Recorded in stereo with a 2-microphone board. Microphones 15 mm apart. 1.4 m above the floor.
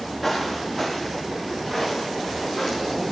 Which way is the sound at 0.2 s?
5° right (ahead or behind).